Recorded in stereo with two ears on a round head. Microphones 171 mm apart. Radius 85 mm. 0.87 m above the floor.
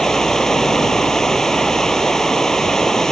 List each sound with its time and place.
0.0 s running water: 5° left (ahead or behind)